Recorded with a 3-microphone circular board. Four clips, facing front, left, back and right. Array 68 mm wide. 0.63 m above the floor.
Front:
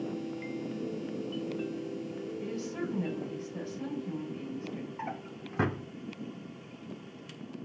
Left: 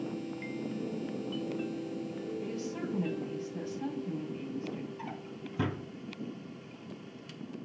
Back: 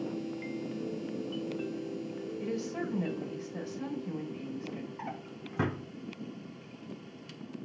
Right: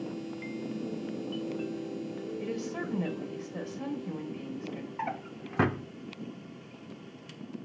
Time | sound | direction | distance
2.4 | a woman speaking | 105° right | 2.5 m
5.0 | a drawer | 80° right | 0.7 m